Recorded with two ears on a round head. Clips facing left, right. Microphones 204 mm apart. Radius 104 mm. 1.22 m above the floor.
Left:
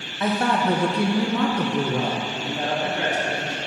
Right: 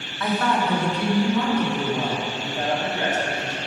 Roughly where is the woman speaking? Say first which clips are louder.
Left 1 dB; centre.